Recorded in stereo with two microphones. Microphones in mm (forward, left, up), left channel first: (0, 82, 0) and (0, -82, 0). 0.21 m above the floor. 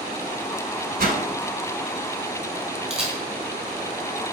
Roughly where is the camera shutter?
Centre.